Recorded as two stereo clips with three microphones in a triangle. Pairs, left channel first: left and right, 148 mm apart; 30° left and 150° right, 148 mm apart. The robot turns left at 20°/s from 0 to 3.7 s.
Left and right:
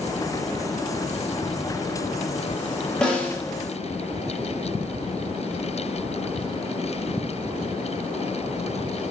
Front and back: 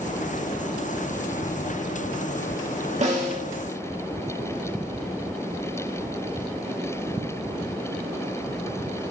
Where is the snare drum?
175° left, 1.8 m; by 3.4 s 165° left, 1.8 m.